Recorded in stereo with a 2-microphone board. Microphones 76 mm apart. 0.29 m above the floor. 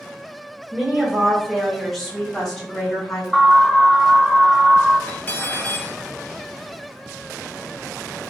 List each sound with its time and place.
0.7 s a woman speaking: 10° right (ahead or behind), 1.3 m; by 3.2 s 10° left (ahead or behind), 2.5 m
3.3 s an alarm: centre (ahead or behind), 0.7 m
5.1 s cutlery clinking: 25° left (ahead or behind), 0.9 m